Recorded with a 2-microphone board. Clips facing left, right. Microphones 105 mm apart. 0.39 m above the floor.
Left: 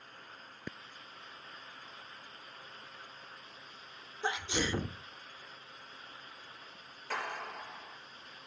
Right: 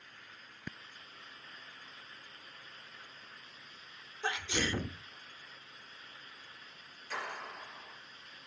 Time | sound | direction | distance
4.2 | a sneeze | 15° left (ahead or behind) | 0.9 m
7.1 | a clap | 70° left (ahead or behind) | 6.5 m